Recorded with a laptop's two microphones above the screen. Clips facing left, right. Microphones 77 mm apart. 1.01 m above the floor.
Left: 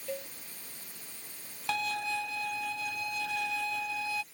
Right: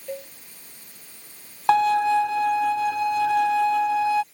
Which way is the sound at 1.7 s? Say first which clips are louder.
Right 16 dB; 70° right (ahead or behind).